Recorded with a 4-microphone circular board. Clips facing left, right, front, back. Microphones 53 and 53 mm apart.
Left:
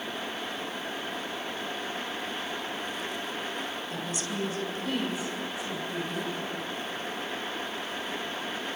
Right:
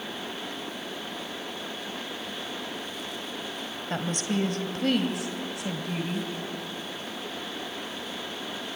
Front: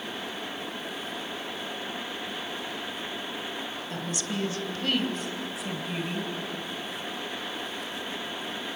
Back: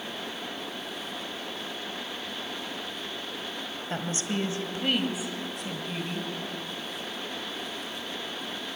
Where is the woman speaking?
130° right, 2.5 m; by 6.3 s 75° right, 3.5 m.